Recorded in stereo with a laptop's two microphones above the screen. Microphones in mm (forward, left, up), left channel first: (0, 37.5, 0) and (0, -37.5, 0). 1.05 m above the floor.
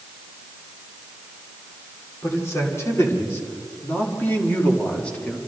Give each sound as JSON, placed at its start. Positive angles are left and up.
{"t": 2.2, "sound": "a man speaking", "side_deg": 40, "distance_m": 3.0}